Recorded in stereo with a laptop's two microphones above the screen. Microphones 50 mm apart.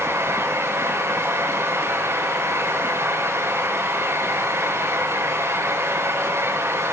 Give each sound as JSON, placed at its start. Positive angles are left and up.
{"t": 0.0, "sound": "a fan", "side_deg": -65, "distance_m": 5.0}